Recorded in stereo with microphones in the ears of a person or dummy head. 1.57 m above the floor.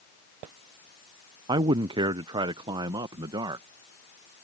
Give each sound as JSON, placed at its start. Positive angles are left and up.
{"t": 1.5, "sound": "a man speaking", "side_deg": -25}